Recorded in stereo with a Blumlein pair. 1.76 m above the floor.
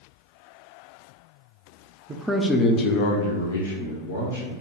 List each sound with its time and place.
2.1 s a man speaking: 20° right, 0.5 m; by 4.5 s 75° left, 1.2 m